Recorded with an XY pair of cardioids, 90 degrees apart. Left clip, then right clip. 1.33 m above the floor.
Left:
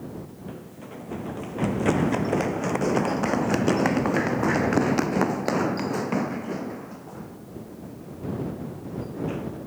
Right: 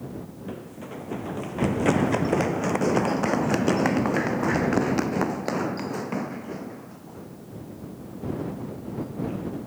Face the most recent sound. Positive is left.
turn(degrees=65)